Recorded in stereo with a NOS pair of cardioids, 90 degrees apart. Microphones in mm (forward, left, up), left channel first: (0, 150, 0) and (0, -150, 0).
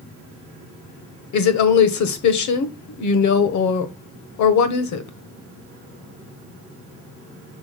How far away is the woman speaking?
About 1.3 m.